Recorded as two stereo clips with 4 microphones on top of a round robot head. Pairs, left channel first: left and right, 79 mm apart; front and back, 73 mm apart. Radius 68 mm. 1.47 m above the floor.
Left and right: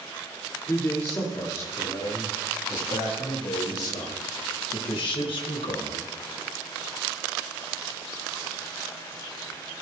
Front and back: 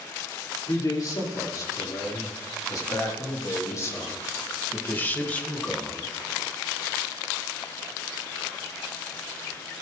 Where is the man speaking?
30° left, 5 m; by 6.1 s 85° left, 1.6 m.